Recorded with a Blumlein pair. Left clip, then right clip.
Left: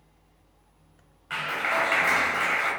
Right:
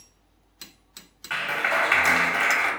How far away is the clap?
About 0.7 m.